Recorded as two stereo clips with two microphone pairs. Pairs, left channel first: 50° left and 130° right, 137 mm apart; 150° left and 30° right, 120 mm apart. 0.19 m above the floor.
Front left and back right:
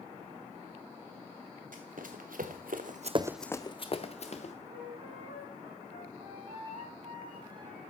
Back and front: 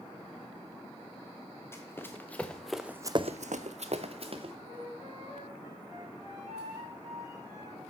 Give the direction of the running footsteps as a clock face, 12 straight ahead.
5 o'clock.